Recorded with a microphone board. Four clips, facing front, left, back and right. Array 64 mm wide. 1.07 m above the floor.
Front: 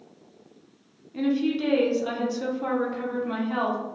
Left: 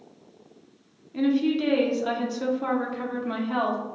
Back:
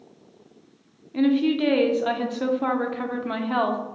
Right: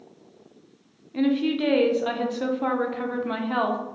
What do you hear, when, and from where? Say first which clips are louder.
1.1 s a woman speaking: even, back 4 dB; 155° right, 0.6 m